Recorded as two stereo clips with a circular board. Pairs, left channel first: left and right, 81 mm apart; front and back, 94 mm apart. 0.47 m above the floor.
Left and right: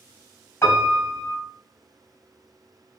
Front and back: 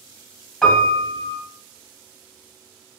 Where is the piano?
75° left, 1.0 m.